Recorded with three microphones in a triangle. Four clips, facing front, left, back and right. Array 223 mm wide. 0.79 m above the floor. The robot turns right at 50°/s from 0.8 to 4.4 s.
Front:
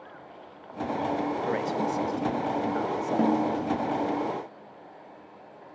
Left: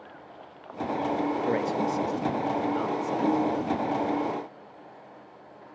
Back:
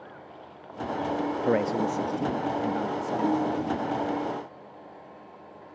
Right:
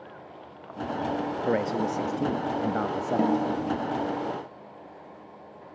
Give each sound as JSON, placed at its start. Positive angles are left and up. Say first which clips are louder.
{"t": 1.4, "sound": "a man speaking", "louder": "even, back 3 dB", "azimuth_deg": -160, "distance_m": 1.2}
{"t": 3.2, "sound": "a snare drum", "louder": "even, front 1 dB", "azimuth_deg": -45, "distance_m": 3.5}